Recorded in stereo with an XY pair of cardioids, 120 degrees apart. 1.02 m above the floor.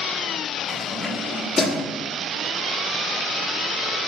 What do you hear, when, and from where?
0.7 s keys jangling: 15° left, 1.4 m; by 1.9 s 50° left, 1.1 m